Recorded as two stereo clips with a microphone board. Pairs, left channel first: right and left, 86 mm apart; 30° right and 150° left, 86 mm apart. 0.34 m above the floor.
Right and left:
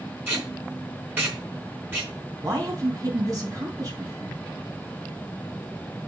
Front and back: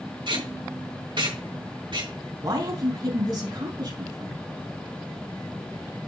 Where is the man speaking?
130° left, 3 m.